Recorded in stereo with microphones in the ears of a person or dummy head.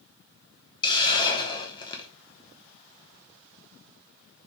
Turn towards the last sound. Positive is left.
turn(degrees=20)  # may be behind; listen again after turning